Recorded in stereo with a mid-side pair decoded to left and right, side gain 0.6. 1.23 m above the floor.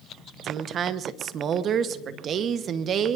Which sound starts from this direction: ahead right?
A woman speaking, at 0.4 s.